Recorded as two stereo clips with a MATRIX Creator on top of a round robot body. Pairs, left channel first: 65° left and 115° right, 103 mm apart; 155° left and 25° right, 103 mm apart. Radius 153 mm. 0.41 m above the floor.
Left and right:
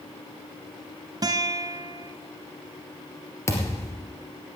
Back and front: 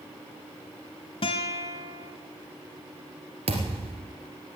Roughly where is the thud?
Ahead.